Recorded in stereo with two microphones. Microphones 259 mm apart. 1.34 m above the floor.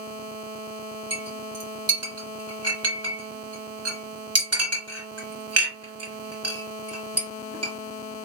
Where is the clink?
65° right (ahead or behind), 1.4 m.